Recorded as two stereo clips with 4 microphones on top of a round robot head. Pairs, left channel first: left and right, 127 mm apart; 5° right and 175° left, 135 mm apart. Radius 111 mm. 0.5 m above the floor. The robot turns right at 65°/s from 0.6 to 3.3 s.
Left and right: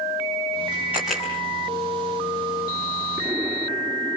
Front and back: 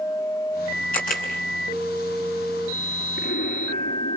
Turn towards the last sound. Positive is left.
turn(degrees=-5)